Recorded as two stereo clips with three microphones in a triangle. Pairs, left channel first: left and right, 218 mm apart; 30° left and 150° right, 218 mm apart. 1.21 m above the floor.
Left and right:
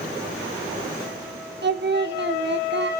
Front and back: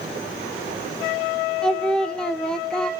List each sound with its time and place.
1.6 s singing: 55° right, 0.6 m